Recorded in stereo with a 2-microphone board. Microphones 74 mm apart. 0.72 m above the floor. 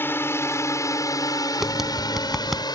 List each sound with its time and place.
0.0 s a drone: 30° left (ahead or behind); by 2.8 s 70° left (ahead or behind)
1.6 s tapping: 5° right (ahead or behind)